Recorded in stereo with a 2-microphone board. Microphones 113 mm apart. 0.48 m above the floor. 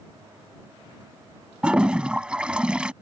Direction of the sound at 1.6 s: 10° right (ahead or behind).